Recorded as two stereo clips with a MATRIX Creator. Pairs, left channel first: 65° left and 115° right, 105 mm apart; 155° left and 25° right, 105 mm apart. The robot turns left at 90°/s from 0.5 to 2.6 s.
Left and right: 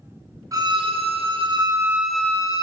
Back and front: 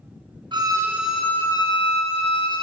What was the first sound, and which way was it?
A violin, 60° right.